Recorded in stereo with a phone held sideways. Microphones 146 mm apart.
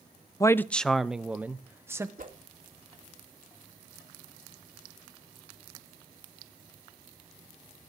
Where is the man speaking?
25° left (ahead or behind), 0.6 m; by 2.1 s 20° right (ahead or behind), 1.4 m.